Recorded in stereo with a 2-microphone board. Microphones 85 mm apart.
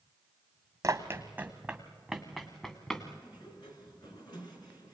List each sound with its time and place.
0.8 s running footsteps: 35° right (ahead or behind), 1.4 m; by 3.1 s 15° left (ahead or behind), 2.5 m
3.2 s a sliding door: 60° left (ahead or behind), 4 m